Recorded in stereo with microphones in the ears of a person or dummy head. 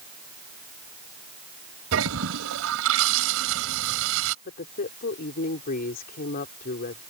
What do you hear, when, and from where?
1.9 s a toilet flushing: 80° right
4.5 s a woman speaking: 45° left (ahead or behind)